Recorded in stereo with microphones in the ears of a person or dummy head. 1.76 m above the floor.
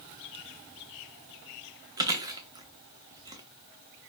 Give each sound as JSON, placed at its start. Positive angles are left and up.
{"t": 2.0, "sound": "chewing", "side_deg": -20, "distance_m": 0.7}